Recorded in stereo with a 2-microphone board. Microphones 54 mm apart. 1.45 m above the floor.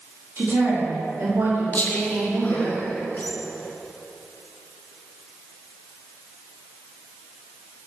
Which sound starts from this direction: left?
Whispering, at 1.7 s.